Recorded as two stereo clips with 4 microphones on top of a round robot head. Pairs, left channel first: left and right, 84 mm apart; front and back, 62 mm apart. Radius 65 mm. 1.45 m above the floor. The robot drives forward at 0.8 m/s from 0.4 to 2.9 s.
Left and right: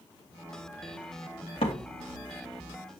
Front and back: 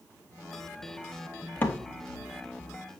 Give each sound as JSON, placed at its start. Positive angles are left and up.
{"t": 1.6, "sound": "a door slam", "azimuth_deg": 55, "distance_m": 2.0}